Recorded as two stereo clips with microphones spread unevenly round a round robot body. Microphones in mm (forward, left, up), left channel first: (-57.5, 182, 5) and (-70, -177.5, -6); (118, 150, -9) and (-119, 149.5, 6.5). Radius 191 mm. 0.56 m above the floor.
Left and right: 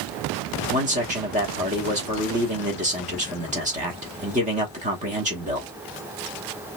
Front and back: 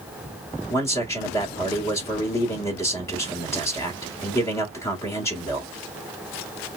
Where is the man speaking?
55° right, 1.0 m.